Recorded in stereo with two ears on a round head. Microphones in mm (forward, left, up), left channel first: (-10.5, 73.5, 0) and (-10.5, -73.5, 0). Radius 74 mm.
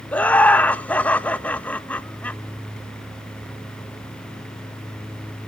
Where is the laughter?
10° left (ahead or behind), 0.7 m.